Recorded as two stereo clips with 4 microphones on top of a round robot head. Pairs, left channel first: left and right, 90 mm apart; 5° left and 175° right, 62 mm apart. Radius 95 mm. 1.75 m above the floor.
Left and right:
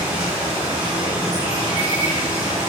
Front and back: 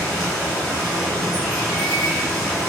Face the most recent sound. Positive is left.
turn(degrees=-65)